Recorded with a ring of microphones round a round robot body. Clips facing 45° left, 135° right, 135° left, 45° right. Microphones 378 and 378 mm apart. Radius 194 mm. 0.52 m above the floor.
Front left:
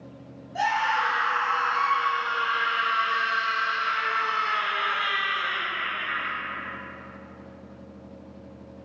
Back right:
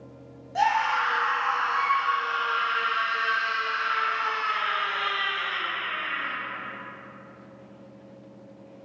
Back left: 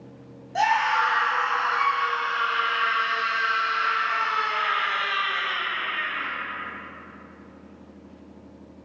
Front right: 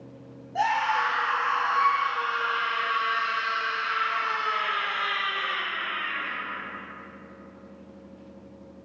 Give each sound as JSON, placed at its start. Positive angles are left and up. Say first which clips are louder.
{"t": 0.6, "sound": "a scream", "louder": "back right 2 dB, back left 3 dB", "azimuth_deg": 165, "distance_m": 1.7}